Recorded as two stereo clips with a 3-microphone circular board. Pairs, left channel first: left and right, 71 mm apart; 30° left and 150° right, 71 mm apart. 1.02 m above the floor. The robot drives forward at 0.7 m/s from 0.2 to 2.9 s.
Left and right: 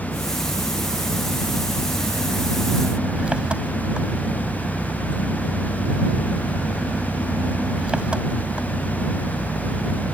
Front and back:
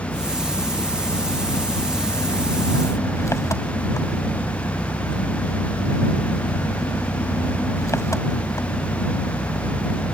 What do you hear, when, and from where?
0.0 s an engine running: 10° right; by 10.1 s 15° right